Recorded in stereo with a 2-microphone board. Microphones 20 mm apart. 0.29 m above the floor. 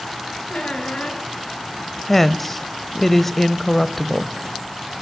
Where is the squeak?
70° left (ahead or behind), 3 m.